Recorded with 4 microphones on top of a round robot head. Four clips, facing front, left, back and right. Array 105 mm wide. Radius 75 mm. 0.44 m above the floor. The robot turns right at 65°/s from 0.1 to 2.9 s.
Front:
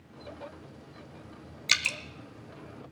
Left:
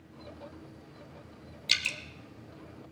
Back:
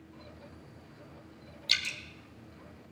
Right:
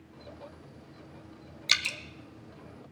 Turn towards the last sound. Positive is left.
turn(degrees=35)